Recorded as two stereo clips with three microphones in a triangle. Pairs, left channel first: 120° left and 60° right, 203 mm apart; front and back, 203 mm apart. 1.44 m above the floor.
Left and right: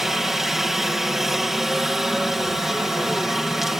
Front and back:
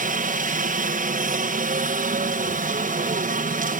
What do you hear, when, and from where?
0.0 s a helicopter: 150° right